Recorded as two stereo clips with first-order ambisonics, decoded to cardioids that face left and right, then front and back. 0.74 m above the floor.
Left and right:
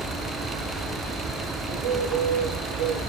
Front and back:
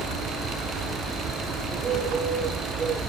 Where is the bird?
115° right, 2.5 m.